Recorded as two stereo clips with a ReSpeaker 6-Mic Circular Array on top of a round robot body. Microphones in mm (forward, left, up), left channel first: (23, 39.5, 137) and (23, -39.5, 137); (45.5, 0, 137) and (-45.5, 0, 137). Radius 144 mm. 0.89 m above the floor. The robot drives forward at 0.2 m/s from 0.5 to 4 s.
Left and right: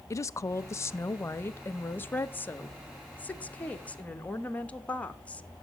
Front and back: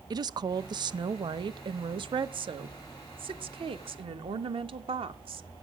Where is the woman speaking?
140° left, 0.6 m; by 5.5 s 165° left, 1.2 m.